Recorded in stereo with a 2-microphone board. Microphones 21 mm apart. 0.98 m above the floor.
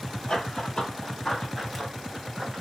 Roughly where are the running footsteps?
Left.